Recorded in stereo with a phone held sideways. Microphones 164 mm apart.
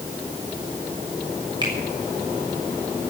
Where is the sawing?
No sawing in this recording.